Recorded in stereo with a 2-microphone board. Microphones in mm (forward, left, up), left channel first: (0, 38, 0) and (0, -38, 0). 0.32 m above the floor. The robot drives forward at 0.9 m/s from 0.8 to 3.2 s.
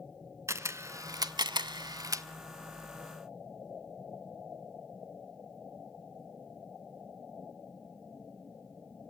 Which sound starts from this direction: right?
A camera shutter, at 0.5 s.